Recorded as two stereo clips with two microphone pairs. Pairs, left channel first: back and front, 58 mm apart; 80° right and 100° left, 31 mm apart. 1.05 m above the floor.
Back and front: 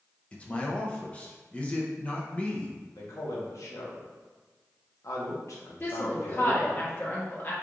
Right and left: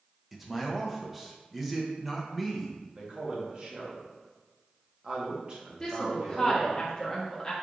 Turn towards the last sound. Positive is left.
turn(degrees=-145)